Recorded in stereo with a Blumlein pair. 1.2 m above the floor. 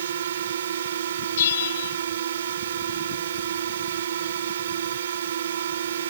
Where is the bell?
60° left.